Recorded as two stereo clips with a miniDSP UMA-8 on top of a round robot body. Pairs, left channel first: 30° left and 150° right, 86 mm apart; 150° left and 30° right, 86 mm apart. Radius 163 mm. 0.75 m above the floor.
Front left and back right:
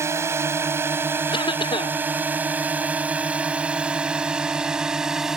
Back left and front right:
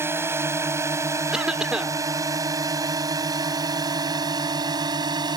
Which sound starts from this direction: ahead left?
A cough, at 1.3 s.